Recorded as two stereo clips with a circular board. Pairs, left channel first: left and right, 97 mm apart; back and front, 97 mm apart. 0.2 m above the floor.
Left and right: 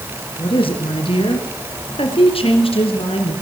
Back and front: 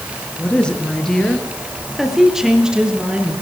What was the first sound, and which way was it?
A woman speaking, 105° left.